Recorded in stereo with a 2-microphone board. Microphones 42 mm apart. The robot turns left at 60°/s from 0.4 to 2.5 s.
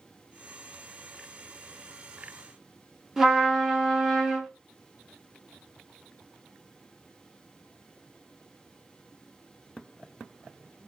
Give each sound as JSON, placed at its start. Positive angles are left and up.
{"t": 3.2, "sound": "a trumpet", "side_deg": -5, "distance_m": 0.8}